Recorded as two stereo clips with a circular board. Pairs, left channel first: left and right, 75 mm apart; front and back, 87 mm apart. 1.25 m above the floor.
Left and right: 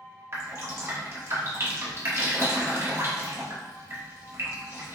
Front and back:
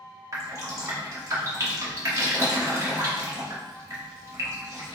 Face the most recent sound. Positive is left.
turn(degrees=-135)